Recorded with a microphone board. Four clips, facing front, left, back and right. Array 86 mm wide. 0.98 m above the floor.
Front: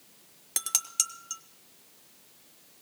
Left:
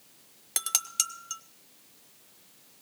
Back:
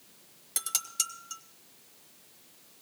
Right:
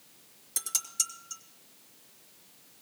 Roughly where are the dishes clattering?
Ahead left.